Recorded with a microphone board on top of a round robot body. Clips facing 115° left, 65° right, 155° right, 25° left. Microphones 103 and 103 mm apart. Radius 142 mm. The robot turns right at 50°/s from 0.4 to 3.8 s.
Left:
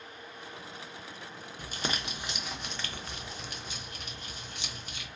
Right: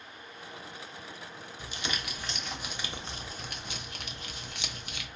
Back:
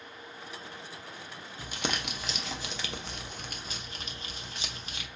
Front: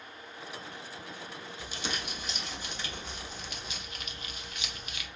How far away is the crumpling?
About 0.6 m.